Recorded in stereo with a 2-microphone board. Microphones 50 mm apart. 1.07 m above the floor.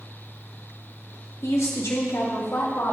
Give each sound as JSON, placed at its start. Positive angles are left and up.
{"t": 1.4, "sound": "a woman speaking", "side_deg": 70, "distance_m": 1.6}